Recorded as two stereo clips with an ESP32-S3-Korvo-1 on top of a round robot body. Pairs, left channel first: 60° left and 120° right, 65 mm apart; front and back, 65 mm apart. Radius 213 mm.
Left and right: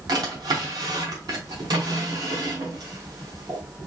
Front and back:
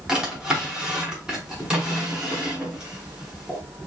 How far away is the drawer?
About 0.8 m.